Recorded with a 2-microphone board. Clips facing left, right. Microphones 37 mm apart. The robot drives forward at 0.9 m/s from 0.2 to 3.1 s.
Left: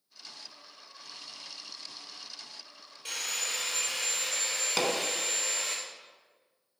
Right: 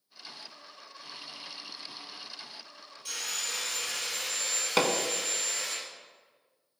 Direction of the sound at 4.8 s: 25° right (ahead or behind).